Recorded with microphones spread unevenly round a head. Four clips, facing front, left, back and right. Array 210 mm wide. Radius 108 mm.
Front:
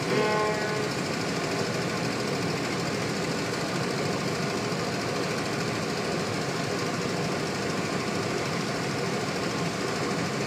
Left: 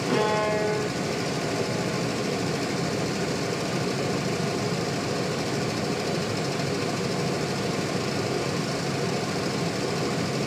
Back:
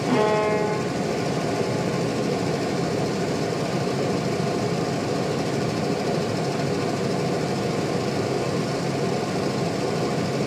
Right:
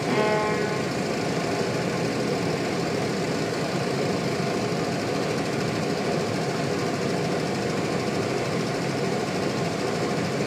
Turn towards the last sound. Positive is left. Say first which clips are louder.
# even, back 5 dB
turn(degrees=-155)